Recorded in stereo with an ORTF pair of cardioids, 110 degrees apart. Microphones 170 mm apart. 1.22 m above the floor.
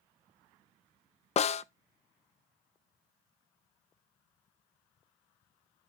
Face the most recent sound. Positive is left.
turn(degrees=40)